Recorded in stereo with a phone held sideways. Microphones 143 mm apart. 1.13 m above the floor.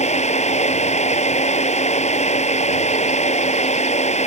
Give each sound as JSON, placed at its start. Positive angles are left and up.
{"t": 0.0, "sound": "a fan", "side_deg": 50}